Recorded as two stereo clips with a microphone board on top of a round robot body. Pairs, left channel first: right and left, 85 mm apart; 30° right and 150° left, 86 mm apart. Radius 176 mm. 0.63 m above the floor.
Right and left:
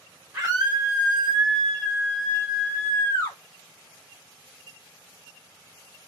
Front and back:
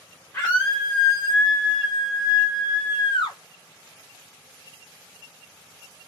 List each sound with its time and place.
0.3 s a scream: 15° left, 2 m; by 3.4 s 40° right, 2 m